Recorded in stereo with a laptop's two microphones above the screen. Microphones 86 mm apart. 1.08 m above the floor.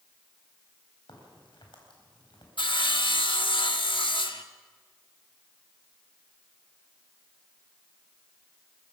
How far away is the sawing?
About 1.3 m.